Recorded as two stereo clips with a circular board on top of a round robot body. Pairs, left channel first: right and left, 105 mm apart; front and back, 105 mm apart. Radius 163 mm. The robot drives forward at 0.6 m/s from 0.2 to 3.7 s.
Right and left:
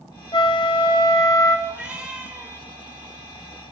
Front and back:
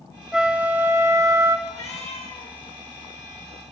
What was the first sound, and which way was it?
A flute, 95° right.